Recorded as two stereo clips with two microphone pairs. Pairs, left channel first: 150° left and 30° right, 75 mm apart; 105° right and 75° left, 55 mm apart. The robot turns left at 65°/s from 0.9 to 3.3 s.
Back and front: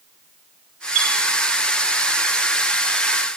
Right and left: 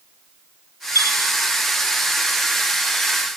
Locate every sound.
0.9 s a chime: 45° left, 4 m; by 1.1 s 30° left, 4 m